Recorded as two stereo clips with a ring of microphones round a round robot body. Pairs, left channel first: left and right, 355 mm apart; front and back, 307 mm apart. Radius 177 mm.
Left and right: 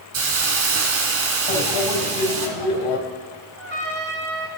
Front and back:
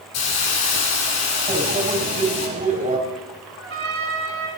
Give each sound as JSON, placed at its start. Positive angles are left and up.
{"t": 0.1, "sound": "a hiss", "azimuth_deg": -35, "distance_m": 1.8}
{"t": 1.5, "sound": "a microwave", "azimuth_deg": 115, "distance_m": 3.5}
{"t": 3.6, "sound": "a trumpet", "azimuth_deg": -145, "distance_m": 1.9}